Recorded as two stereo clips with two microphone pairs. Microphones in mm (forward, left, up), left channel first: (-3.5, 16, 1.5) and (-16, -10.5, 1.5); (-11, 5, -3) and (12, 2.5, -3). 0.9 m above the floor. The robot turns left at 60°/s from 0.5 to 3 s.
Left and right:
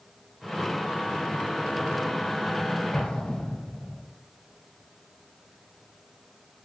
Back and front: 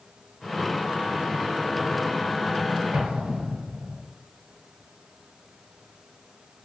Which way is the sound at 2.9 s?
15° left.